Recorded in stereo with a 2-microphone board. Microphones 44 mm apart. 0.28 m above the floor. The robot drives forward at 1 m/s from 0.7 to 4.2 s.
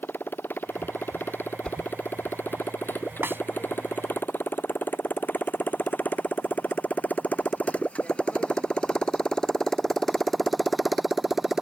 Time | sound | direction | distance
0.0 | a motorcycle | 55° left (ahead or behind) | ?
1.6 | a whoosh | 25° left (ahead or behind) | ?
3.2 | a snare drum | 60° right (ahead or behind) | ?